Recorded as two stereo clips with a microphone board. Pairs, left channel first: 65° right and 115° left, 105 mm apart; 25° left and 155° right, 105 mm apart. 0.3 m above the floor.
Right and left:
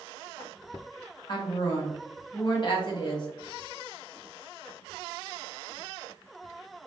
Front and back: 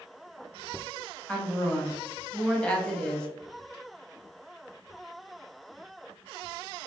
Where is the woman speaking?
55° right, 1.3 m.